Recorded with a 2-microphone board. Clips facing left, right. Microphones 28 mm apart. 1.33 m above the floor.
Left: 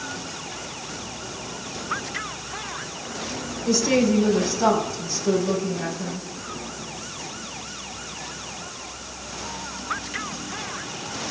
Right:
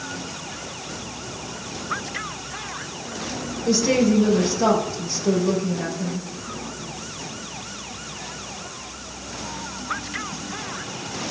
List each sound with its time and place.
3.6 s a woman speaking: 30° right (ahead or behind), 5 m